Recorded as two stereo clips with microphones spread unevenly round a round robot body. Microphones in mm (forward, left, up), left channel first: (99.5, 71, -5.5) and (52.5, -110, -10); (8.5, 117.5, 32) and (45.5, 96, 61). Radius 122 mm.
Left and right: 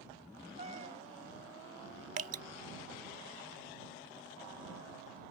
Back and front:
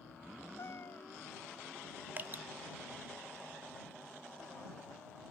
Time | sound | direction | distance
0.6 | a cat meowing | 170° right | ?
2.2 | dripping | 110° right | ?